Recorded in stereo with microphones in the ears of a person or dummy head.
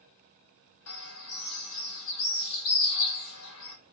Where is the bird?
80° left, 1.2 m.